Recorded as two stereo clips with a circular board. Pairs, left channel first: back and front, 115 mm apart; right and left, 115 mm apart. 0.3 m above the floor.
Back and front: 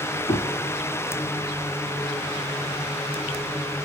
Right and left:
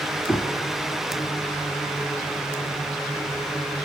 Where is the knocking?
165° right, 2 m.